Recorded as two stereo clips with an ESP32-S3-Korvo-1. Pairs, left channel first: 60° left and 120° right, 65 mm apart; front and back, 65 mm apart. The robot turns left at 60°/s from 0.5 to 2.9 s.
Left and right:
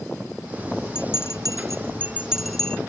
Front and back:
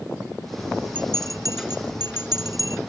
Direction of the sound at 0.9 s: 115° right.